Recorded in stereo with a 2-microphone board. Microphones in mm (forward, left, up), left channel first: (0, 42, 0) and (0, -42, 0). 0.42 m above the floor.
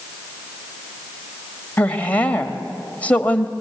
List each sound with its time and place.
1.8 s a woman speaking: 20° left (ahead or behind), 1.5 m